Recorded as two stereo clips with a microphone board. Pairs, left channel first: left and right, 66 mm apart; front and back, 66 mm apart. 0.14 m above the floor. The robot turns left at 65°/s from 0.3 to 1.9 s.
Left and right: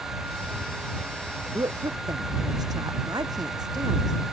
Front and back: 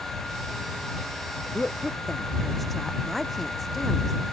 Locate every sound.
1.5 s a woman speaking: 65° right; by 4.1 s 90° right